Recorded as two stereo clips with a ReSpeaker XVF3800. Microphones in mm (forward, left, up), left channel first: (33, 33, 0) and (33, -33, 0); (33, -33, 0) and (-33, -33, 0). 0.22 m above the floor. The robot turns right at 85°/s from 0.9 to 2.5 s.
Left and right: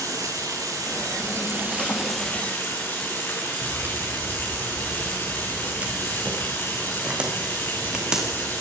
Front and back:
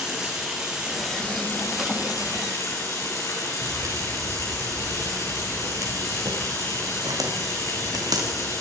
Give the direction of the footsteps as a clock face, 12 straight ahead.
5 o'clock.